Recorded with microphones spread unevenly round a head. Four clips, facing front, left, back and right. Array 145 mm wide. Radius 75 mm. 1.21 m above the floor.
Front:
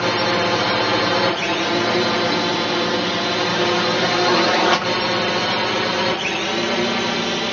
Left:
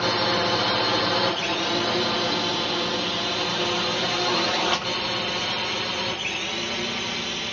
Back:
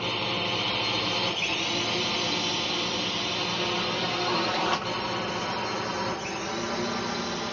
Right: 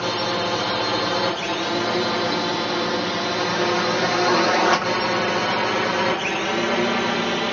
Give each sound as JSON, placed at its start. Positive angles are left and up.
{"t": 0.0, "sound": "a drone", "azimuth_deg": 0}